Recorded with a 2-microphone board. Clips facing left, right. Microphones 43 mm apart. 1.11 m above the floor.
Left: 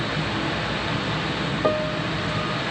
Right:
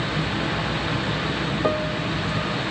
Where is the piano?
5° left (ahead or behind).